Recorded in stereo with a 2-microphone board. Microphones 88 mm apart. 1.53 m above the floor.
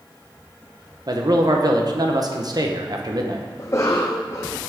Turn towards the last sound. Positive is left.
turn(degrees=35)  # may be behind; listen again after turning